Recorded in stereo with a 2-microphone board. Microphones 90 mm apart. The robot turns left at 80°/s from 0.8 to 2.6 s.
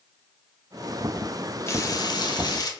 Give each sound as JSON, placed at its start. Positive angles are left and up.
{"t": 1.7, "sound": "frying", "azimuth_deg": 140, "distance_m": 0.6}